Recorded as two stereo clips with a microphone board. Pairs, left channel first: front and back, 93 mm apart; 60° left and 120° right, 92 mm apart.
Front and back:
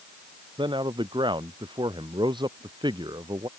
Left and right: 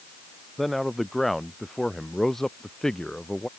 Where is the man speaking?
150° left; by 3.5 s 145° left.